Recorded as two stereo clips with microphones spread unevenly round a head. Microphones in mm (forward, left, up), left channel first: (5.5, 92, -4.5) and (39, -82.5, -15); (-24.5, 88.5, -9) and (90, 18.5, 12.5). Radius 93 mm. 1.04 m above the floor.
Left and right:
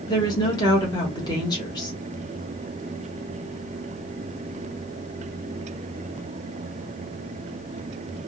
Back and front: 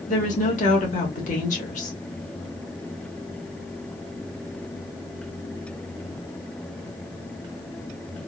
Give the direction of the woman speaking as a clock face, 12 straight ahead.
6 o'clock.